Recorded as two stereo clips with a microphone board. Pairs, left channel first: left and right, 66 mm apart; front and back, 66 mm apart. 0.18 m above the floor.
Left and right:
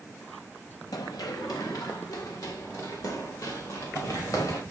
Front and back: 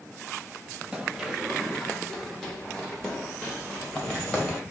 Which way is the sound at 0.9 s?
105° left.